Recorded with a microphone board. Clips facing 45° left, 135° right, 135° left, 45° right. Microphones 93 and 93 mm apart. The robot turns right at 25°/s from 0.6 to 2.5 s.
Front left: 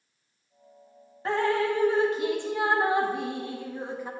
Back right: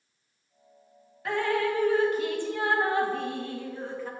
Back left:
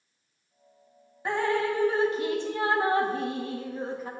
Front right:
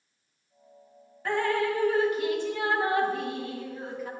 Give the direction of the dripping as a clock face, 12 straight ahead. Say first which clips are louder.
Front left 2 dB, even; 9 o'clock.